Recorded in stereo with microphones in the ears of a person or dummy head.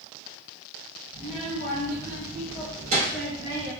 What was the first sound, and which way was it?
A child speaking, 55° right (ahead or behind).